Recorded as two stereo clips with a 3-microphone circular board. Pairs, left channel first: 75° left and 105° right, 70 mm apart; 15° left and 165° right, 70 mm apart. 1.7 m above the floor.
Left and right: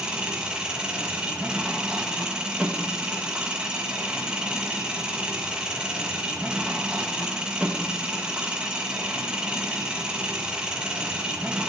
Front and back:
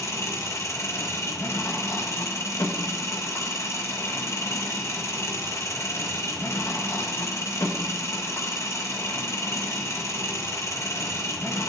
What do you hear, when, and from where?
0.0 s an engine running: 30° right, 1.8 m